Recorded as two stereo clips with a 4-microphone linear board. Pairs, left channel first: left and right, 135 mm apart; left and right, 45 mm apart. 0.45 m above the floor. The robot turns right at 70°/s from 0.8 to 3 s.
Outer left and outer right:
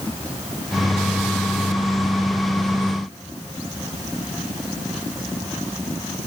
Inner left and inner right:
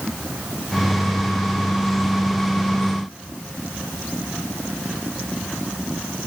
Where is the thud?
I don't hear a thud.